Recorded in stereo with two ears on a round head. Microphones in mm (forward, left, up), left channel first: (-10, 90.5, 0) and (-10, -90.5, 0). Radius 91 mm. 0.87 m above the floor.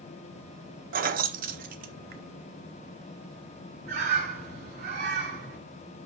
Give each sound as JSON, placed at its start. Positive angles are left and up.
{"t": 0.9, "sound": "keys jangling", "side_deg": -45, "distance_m": 0.6}
{"t": 3.9, "sound": "a bird", "side_deg": -55, "distance_m": 4.0}